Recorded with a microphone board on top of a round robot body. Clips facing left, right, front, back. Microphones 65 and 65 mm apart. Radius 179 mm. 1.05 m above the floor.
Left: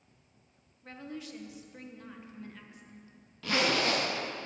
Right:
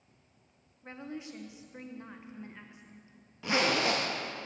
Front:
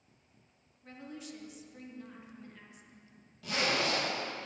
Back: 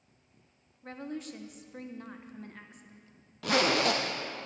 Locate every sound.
0.8 s a woman speaking: 155° right, 1.2 m
3.4 s a zipper: 165° right, 0.6 m